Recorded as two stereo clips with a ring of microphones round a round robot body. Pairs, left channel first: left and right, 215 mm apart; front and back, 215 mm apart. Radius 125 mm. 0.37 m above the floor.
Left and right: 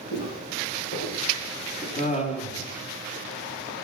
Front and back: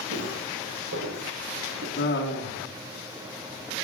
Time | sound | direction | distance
0.1 | footsteps | 145° left | 4.5 m
2.0 | laughter | 35° left | 3 m